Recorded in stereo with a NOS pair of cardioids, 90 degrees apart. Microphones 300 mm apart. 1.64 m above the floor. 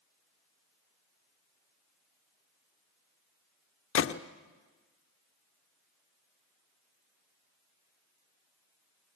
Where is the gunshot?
45° left, 0.9 m.